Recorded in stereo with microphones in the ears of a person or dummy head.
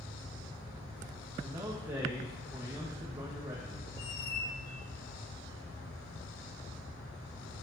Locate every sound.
1.4 s a man speaking: 15° right (ahead or behind), 2 m
4.0 s a squeak: 35° left (ahead or behind), 2 m